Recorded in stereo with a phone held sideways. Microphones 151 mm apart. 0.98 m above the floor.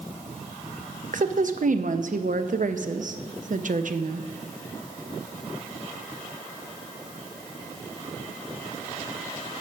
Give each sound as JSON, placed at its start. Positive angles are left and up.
{"t": 1.1, "sound": "a woman speaking", "side_deg": -60, "distance_m": 0.6}